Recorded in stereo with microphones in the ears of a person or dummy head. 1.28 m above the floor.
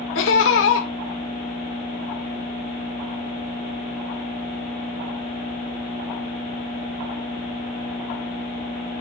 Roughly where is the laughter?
Left.